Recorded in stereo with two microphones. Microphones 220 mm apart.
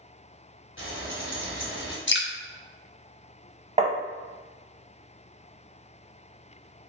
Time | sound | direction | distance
0.8 | frying | 65° left (ahead or behind) | 1.3 m
2.1 | dripping | 55° left (ahead or behind) | 0.6 m
3.8 | tapping | 30° right (ahead or behind) | 0.6 m